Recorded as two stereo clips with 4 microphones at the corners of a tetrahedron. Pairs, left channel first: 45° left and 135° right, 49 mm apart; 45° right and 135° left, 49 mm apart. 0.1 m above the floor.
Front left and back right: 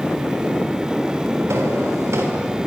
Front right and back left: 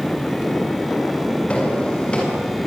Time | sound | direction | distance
1.5 | footsteps | 110° right | 6.5 m